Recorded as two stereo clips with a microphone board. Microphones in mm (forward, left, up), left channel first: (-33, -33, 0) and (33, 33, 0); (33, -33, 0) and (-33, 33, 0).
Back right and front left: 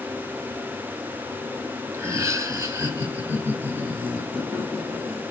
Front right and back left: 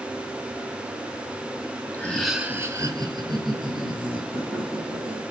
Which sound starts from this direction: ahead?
Laughter, at 1.9 s.